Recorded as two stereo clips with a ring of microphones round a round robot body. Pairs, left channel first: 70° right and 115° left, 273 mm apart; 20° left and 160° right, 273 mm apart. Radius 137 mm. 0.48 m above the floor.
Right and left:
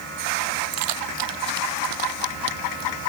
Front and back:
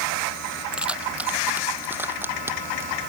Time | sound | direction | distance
0.7 | keys jangling | 115° left | ?